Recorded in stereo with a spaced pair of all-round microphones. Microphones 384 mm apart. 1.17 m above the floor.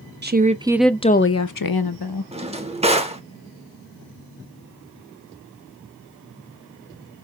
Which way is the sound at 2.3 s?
15° right (ahead or behind).